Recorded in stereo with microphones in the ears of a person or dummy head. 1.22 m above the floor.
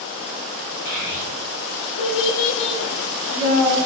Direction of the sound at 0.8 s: 70° left (ahead or behind).